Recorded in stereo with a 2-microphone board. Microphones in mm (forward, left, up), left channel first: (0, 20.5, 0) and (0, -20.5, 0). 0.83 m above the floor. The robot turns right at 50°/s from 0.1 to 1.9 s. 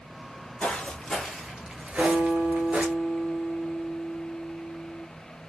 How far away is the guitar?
About 1.5 m.